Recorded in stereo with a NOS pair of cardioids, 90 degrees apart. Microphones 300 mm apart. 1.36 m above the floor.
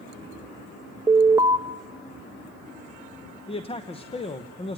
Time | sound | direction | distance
1.1 | an alarm | 10° right | 0.9 m
3.5 | a man speaking | 20° left | 1.0 m